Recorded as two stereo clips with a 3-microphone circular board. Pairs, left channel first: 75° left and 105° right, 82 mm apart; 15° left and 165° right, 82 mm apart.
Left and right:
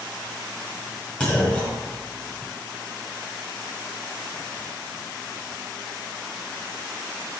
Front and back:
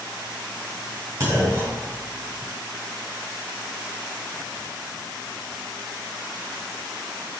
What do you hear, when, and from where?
1.2 s a clunk: 145° left, 1.9 m